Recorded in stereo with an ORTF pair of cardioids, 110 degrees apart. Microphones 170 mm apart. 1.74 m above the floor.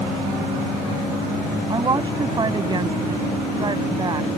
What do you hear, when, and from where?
1.7 s a woman speaking: 25° right